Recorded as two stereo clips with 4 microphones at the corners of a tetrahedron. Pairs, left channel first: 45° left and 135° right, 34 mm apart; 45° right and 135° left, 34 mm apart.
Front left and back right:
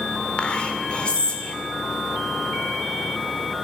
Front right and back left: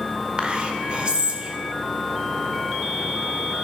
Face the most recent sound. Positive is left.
turn(degrees=85)